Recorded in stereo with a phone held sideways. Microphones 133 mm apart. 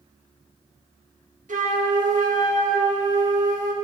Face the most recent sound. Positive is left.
turn(degrees=-70)  # may be behind; listen again after turning